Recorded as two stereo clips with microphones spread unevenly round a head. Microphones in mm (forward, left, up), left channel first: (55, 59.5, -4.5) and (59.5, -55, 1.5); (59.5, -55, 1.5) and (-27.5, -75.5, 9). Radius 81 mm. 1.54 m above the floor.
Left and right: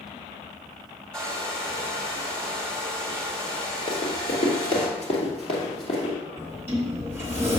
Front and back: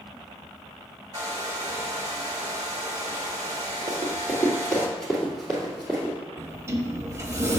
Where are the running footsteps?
90° left, 2.0 m; by 6.2 s 120° left, 2.5 m.